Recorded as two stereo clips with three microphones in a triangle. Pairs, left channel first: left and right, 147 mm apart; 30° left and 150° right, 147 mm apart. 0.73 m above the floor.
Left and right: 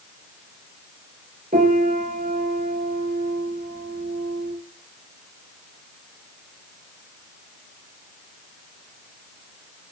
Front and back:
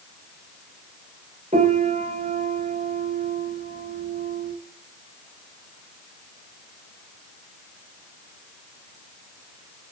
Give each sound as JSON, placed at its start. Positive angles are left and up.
{"t": 1.5, "sound": "a piano", "azimuth_deg": -110, "distance_m": 4.5}